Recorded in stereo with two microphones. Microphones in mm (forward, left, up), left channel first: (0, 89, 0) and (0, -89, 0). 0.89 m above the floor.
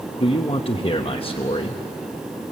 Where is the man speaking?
30° left (ahead or behind), 1.0 m.